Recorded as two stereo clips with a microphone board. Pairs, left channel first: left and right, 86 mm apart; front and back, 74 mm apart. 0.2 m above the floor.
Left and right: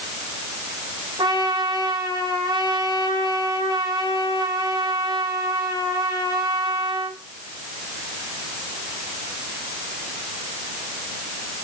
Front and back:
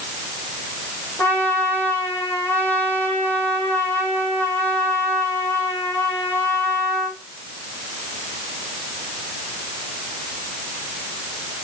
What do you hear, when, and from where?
1.2 s a trumpet: 65° right, 4.5 m